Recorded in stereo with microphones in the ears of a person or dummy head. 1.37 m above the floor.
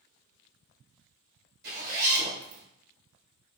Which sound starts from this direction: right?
A zipper, at 1.6 s.